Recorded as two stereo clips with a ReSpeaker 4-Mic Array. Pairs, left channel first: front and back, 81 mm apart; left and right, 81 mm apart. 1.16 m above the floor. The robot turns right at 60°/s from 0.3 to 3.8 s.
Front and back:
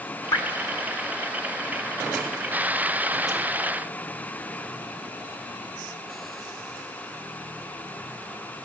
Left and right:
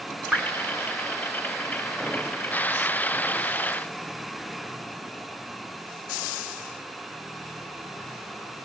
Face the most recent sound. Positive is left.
turn(degrees=-160)